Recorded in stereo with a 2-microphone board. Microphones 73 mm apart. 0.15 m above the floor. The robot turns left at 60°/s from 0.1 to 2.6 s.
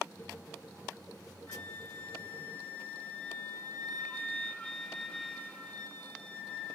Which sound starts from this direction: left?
A flute, at 1.5 s.